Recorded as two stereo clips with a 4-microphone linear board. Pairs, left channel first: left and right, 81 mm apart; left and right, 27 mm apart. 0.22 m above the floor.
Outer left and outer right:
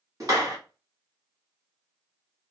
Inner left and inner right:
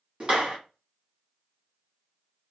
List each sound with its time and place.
0.2 s a clap: 45° right (ahead or behind), 1.5 m